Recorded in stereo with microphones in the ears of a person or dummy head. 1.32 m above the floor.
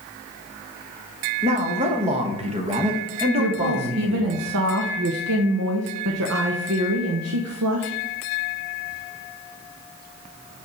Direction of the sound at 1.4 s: 30° right (ahead or behind).